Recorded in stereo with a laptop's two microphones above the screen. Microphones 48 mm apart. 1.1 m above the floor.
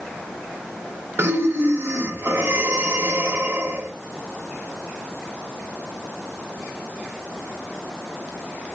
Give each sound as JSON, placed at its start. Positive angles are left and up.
{"t": 1.2, "sound": "breathing", "side_deg": -55, "distance_m": 0.8}